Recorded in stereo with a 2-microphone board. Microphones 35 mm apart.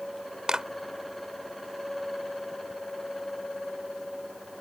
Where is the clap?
20° right (ahead or behind).